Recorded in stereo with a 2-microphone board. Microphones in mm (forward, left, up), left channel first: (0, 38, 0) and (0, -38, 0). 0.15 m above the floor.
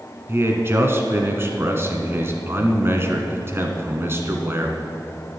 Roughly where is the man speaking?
Right.